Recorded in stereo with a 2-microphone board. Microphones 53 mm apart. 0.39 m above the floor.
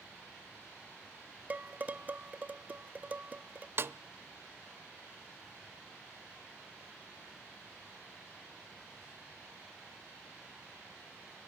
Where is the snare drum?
45° right (ahead or behind), 0.5 m.